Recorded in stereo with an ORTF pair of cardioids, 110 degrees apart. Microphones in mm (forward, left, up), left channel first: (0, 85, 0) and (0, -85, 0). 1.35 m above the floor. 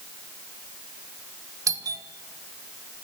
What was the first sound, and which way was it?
A doorbell, 20° right.